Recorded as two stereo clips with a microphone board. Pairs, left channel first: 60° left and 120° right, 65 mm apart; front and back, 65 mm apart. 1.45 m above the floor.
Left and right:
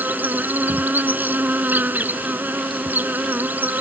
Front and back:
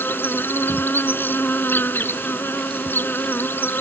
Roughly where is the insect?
Ahead right.